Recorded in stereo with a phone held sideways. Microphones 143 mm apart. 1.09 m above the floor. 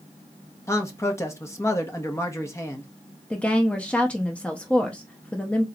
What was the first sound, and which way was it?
A man speaking, 20° left (ahead or behind).